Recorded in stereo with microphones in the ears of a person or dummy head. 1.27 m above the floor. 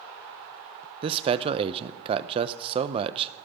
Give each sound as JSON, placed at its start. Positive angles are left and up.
{"t": 1.0, "sound": "a man speaking", "side_deg": -30, "distance_m": 0.5}